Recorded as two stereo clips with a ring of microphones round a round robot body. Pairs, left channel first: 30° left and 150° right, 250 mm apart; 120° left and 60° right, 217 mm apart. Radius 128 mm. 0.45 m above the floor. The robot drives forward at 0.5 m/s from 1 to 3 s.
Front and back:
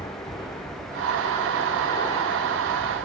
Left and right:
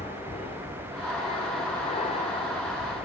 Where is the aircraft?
90° left; by 3.1 s 95° left.